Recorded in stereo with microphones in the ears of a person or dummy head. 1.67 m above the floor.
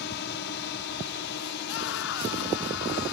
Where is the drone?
60° left (ahead or behind); by 3.1 s 65° left (ahead or behind).